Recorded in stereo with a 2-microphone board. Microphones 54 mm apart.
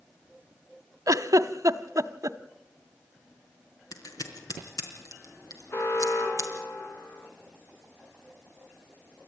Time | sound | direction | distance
1.1 | a giggle | 75° right (ahead or behind) | 0.8 m
3.9 | scissors | 80° left | 4 m
5.7 | an alarm | 55° left (ahead or behind) | 3.5 m